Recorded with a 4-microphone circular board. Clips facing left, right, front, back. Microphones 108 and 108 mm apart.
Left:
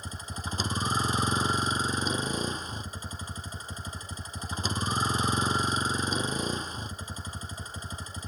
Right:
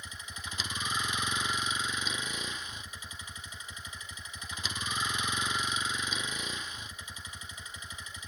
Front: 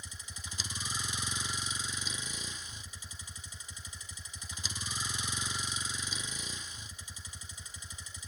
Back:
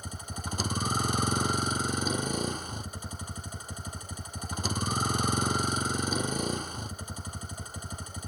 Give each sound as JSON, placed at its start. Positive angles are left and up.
{"t": 0.0, "sound": "a vehicle", "azimuth_deg": 145}